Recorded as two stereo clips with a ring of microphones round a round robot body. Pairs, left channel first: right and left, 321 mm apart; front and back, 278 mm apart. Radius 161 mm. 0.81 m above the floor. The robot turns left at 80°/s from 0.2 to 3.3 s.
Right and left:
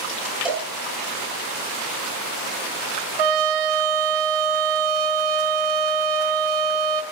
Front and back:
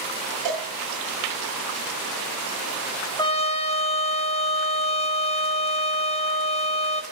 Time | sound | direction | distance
0.5 | a cowbell | straight behind | 9 m
3.2 | a trumpet | 80° left | 1.7 m